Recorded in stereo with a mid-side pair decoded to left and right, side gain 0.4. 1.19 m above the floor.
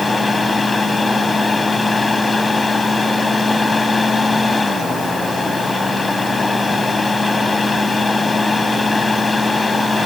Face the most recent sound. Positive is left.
turn(degrees=30)